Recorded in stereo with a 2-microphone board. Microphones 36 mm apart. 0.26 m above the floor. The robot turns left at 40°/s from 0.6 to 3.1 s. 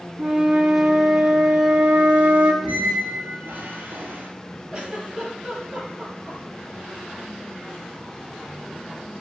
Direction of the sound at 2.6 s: 45° right (ahead or behind).